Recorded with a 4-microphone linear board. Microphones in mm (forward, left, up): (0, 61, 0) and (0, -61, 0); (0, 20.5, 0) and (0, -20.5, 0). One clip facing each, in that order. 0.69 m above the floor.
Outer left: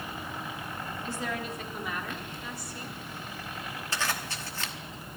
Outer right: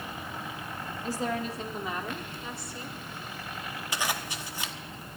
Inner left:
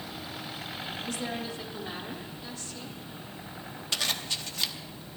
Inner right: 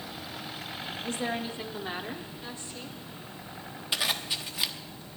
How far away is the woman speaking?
About 1.3 m.